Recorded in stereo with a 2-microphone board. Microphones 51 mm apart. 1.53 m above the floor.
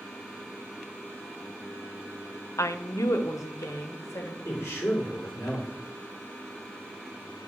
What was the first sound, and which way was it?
A woman speaking, 70° left (ahead or behind).